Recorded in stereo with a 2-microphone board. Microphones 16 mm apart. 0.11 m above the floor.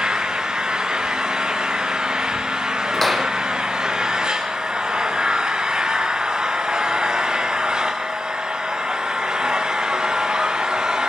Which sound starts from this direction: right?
An engine running, at 0.0 s.